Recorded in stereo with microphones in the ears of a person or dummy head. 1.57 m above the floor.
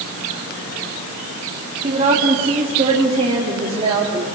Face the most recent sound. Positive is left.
turn(degrees=-35)  # may be behind; listen again after turning